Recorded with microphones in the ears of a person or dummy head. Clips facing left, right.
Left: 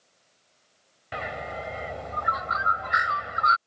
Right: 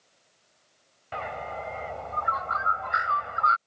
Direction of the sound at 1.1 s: 20° left (ahead or behind).